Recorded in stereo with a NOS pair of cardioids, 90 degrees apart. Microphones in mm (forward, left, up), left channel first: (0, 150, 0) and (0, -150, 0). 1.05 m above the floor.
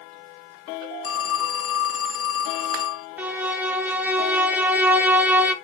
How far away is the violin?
About 1.4 m.